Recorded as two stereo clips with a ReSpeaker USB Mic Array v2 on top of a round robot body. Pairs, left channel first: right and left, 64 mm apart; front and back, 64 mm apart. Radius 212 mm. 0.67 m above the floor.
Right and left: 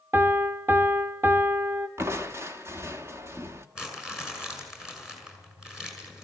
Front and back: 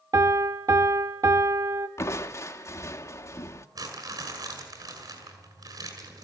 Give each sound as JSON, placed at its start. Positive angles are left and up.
{"t": 0.1, "sound": "a piano", "azimuth_deg": 145, "distance_m": 0.7}
{"t": 2.0, "sound": "crushing", "azimuth_deg": 40, "distance_m": 1.7}
{"t": 3.8, "sound": "crumpling", "azimuth_deg": 170, "distance_m": 6.5}